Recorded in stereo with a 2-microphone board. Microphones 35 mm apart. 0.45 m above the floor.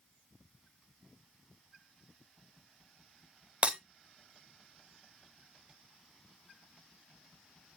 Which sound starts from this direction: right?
Breaking glass, at 3.6 s.